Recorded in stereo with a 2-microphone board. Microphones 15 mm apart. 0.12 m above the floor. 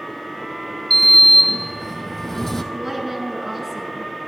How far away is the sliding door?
About 0.7 m.